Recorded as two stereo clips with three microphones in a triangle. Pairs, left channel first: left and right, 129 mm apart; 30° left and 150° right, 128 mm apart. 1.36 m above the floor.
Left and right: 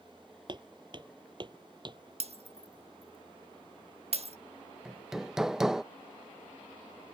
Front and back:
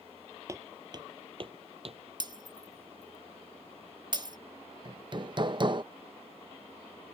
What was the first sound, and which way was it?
Footsteps, 100° right.